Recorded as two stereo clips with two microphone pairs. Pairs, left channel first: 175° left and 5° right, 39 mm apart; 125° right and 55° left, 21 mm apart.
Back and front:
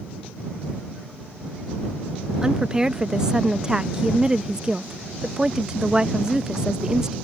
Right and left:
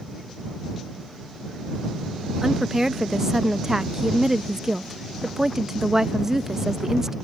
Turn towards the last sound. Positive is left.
turn(degrees=40)